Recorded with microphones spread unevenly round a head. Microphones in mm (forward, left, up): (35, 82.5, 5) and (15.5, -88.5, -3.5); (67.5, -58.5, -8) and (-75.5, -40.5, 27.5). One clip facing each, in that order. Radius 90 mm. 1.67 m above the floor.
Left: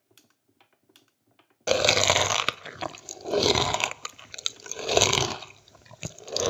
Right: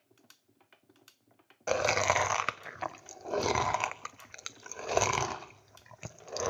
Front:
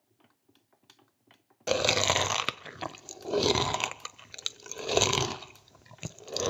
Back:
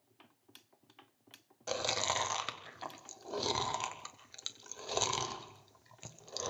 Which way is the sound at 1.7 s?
40° left.